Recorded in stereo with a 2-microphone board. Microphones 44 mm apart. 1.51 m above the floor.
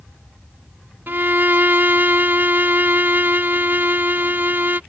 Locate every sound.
1.1 s a violin: 50° right (ahead or behind)